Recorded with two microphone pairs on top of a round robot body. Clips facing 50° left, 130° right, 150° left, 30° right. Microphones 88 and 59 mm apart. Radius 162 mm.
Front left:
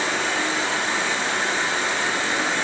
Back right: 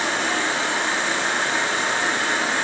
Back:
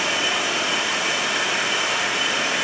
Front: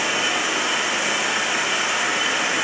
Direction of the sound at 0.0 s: 105° right.